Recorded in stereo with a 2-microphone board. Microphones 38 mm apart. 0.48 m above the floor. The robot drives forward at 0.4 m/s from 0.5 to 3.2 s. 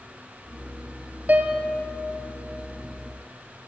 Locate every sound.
1.3 s a piano: 40° right (ahead or behind), 2 m